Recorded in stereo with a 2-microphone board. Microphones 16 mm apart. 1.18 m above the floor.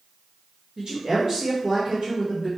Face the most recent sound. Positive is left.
turn(degrees=-60)  # may be behind; listen again after turning